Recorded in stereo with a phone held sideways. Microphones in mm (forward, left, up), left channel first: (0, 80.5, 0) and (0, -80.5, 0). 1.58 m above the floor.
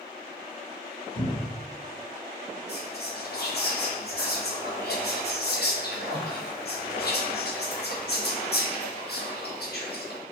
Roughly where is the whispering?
Left.